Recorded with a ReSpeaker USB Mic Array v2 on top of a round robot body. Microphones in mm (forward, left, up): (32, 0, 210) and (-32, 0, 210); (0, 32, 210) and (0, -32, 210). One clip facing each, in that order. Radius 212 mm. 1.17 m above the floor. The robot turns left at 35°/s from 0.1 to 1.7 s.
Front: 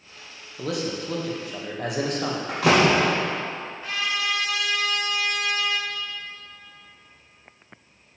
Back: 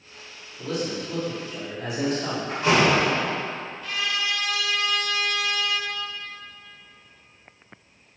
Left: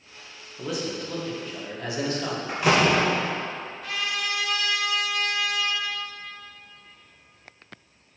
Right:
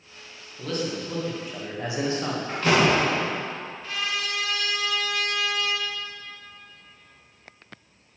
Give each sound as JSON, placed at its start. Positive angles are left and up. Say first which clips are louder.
{"t": 0.6, "sound": "a man speaking", "louder": "even, right 1 dB", "azimuth_deg": 15, "distance_m": 1.8}
{"t": 2.5, "sound": "a door slam", "louder": "front 1 dB, even", "azimuth_deg": 10, "distance_m": 1.3}
{"t": 3.8, "sound": "a trumpet", "louder": "front 1 dB, left 1 dB", "azimuth_deg": 60, "distance_m": 3.0}